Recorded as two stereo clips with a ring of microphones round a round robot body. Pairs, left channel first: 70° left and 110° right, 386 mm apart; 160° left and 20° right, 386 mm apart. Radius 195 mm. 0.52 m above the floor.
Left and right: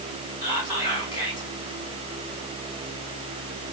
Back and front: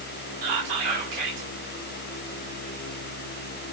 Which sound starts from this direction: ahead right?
Whispering, at 0.4 s.